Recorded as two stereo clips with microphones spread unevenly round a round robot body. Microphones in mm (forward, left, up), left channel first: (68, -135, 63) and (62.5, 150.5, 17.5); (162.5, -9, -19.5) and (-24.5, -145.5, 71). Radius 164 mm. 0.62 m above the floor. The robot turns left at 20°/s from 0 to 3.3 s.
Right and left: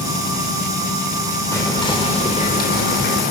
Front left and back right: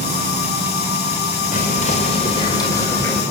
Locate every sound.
1.5 s whispering: 5° right, 3 m; by 3.2 s 40° right, 3 m